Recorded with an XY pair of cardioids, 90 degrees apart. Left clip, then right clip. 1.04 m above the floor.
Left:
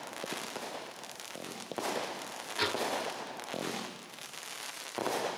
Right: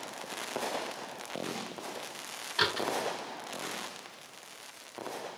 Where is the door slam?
65° right, 6 m.